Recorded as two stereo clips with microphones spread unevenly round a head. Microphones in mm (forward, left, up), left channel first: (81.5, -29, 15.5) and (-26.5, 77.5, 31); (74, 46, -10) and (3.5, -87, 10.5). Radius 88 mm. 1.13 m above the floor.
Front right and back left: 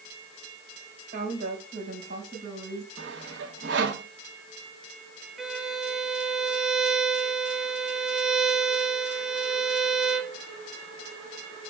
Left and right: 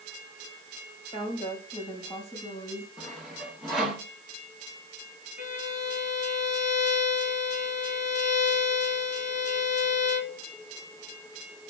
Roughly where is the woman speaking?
Behind left.